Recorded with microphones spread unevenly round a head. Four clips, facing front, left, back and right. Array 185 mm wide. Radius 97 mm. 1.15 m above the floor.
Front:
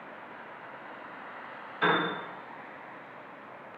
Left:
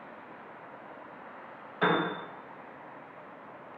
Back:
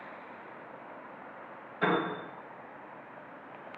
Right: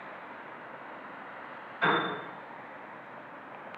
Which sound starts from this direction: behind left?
A piano, at 1.8 s.